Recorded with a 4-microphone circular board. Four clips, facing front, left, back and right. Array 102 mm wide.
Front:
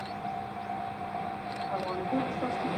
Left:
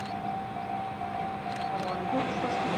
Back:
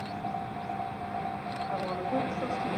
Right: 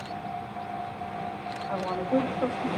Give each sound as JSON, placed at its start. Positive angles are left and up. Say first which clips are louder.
{"t": 1.7, "sound": "a woman speaking", "louder": "right 6 dB, even", "azimuth_deg": -95, "distance_m": 9.0}